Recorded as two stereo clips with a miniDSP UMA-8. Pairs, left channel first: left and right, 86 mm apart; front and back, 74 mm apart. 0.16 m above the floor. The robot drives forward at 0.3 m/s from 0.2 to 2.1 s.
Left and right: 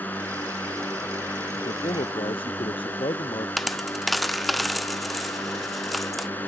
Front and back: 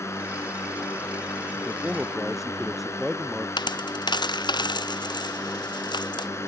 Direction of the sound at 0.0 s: 30° left.